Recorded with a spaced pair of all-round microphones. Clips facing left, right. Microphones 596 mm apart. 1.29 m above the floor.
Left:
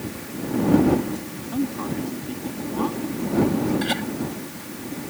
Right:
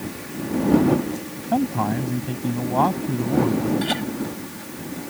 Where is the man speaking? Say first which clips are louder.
Right 3 dB; 85° right; by 3.7 s 90° right.